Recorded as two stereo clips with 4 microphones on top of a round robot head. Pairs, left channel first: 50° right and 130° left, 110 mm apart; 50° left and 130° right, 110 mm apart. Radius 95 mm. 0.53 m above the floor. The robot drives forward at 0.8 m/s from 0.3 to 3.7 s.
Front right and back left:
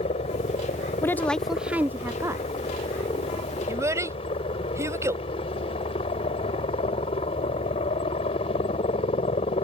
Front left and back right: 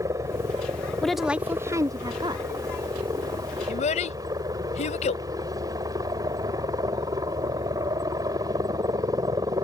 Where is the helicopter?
70° right; by 9.7 s 75° right.